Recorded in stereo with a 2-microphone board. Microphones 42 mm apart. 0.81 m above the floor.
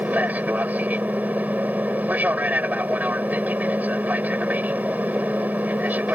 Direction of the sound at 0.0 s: 40° right (ahead or behind).